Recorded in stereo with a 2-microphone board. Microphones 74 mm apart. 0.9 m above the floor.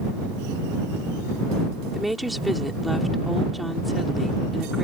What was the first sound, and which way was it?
A woman speaking, centre (ahead or behind).